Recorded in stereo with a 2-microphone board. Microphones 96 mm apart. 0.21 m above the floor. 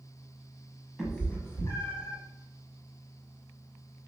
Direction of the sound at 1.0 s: 5° right (ahead or behind).